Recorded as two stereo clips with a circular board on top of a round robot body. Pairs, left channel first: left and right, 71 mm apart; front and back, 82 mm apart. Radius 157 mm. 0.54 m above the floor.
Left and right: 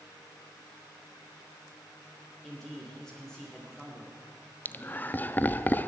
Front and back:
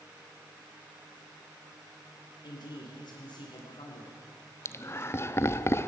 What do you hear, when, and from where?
2.4 s a man speaking: 10° left, 3 m
4.7 s laughter: 40° left, 1.1 m